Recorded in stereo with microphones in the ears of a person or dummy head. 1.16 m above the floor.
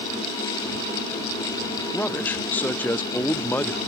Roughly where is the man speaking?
Centre.